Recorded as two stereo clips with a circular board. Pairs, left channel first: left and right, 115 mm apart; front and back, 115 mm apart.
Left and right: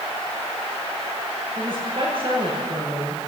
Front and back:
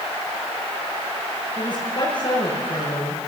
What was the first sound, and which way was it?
A woman speaking, 50° right.